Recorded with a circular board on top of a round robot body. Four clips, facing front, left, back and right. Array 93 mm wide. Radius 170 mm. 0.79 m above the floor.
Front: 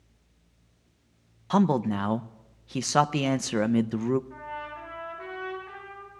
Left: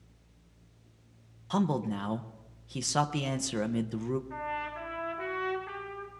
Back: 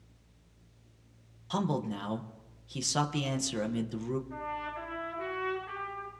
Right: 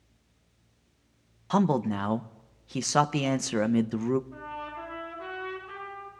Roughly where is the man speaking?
Ahead right.